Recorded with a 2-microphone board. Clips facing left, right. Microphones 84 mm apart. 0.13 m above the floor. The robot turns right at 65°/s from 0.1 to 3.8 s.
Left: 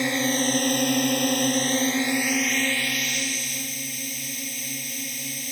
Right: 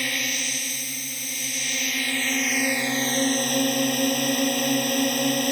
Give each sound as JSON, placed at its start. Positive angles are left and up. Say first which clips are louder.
{"t": 0.0, "sound": "a drone", "louder": "left 7 dB", "azimuth_deg": 30}